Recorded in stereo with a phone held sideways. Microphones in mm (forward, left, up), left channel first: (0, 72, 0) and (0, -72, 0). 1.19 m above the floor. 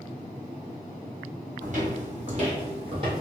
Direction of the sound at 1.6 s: 55° right (ahead or behind).